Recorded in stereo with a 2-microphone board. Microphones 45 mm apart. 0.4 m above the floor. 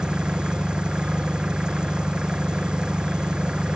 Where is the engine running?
20° right (ahead or behind).